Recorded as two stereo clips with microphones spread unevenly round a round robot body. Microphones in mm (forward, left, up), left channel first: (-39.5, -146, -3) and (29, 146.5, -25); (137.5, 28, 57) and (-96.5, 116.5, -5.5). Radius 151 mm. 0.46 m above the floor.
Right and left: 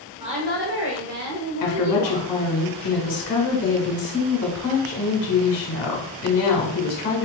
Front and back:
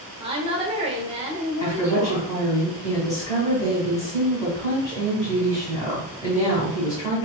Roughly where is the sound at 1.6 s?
Right.